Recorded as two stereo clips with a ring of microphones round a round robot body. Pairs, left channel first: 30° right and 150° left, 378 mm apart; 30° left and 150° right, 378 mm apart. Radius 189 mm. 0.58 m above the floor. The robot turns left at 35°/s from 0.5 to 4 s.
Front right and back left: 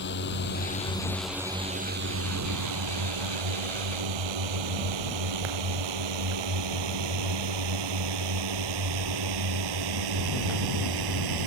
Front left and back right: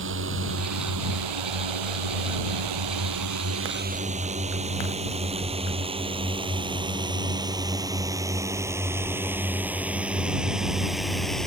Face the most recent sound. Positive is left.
turn(degrees=120)